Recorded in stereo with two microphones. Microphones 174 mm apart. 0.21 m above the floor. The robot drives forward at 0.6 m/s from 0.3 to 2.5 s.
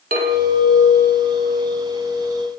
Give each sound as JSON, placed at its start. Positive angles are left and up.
{"t": 0.1, "sound": "a clink", "side_deg": -60, "distance_m": 1.9}